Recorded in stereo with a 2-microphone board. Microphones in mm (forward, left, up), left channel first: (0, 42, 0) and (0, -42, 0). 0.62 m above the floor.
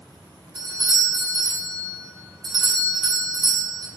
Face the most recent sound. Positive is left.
turn(degrees=-65)  # may be behind; listen again after turning